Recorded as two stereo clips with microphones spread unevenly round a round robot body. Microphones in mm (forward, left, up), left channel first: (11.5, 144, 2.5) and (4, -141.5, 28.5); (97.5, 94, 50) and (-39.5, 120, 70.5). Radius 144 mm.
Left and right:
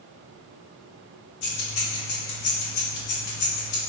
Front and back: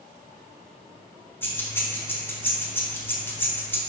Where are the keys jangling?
65° left, 1.0 m.